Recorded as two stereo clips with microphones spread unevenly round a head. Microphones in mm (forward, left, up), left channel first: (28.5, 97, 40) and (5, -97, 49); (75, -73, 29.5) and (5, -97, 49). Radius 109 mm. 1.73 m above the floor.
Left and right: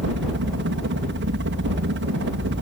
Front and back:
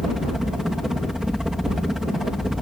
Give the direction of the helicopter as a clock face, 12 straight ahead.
2 o'clock.